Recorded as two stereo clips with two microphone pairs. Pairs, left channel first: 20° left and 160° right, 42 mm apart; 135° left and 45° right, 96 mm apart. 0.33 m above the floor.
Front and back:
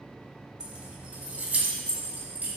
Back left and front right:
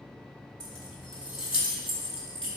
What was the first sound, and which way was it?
Keys jangling, 140° left.